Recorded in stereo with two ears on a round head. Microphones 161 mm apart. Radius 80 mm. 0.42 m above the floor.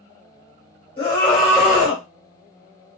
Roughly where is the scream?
Left.